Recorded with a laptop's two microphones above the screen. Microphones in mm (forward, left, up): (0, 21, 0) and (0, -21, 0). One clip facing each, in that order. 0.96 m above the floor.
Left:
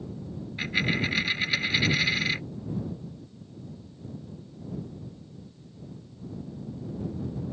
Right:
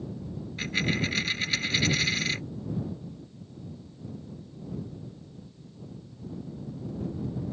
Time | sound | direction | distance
0.6 | a dropped coin | 15° left (ahead or behind) | ?